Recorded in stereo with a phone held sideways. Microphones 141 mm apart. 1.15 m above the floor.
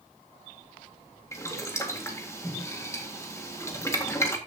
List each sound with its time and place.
1.3 s boiling: 20° left (ahead or behind), 1.8 m